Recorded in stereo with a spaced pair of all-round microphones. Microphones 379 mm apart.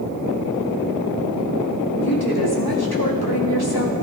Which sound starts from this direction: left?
A woman speaking, at 2.0 s.